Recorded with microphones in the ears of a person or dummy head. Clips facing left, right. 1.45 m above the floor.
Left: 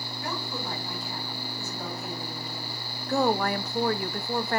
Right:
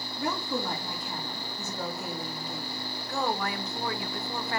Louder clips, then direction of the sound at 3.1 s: Left 7 dB; 45° left (ahead or behind).